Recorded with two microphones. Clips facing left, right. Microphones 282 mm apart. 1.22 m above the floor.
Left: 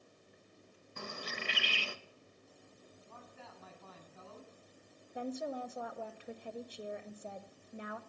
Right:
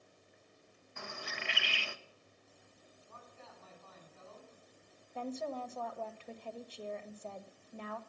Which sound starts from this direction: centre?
A woman speaking, at 5.2 s.